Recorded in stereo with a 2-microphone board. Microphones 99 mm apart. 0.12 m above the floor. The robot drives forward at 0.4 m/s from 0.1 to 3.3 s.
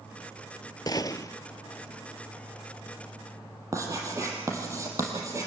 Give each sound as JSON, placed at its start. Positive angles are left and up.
{"t": 0.9, "sound": "a gunshot", "side_deg": 45, "distance_m": 0.6}
{"t": 3.7, "sound": "writing", "side_deg": -30, "distance_m": 4.0}